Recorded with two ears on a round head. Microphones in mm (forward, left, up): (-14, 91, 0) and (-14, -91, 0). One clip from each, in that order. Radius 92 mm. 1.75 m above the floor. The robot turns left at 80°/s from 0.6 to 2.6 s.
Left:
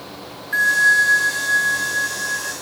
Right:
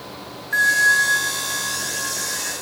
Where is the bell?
Straight behind; by 2.5 s 30° left.